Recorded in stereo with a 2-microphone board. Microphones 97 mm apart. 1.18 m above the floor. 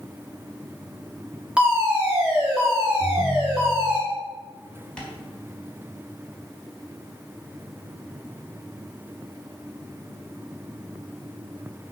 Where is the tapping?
10° left (ahead or behind), 4 m.